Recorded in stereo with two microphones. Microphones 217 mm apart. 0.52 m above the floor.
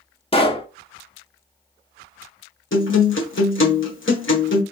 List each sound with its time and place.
0.3 s a pop: 25° left (ahead or behind), 0.9 m
2.7 s a guitar: 65° left (ahead or behind), 1.4 m